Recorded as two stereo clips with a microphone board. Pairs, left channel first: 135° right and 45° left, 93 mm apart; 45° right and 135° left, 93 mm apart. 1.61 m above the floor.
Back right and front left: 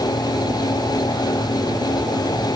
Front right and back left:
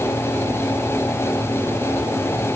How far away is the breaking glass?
I don't hear breaking glass.